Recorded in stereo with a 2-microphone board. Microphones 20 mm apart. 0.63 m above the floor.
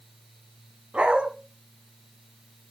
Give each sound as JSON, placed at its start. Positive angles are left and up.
{"t": 0.9, "sound": "a dog barking", "side_deg": -65, "distance_m": 2.0}